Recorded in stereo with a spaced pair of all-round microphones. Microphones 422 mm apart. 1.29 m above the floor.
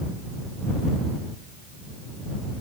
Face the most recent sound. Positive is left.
No sound to turn to.